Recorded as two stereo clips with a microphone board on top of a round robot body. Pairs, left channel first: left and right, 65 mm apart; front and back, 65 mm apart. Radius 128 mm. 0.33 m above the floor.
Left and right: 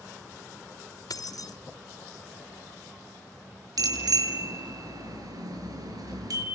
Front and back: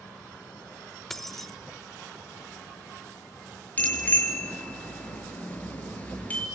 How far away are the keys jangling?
About 1.4 m.